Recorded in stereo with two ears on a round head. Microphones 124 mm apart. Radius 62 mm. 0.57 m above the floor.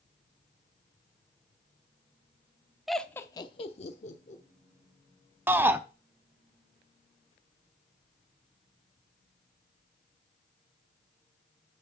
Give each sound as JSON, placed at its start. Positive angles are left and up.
{"t": 2.9, "sound": "laughter", "side_deg": 0, "distance_m": 0.9}
{"t": 5.5, "sound": "a shout", "side_deg": -15, "distance_m": 0.7}